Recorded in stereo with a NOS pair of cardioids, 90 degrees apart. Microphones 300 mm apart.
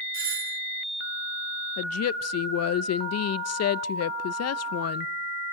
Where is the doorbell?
45° right, 2 m.